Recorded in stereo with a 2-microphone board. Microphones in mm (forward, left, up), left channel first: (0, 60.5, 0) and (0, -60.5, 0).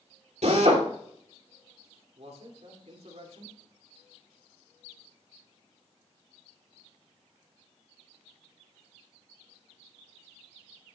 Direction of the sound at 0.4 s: 65° right (ahead or behind).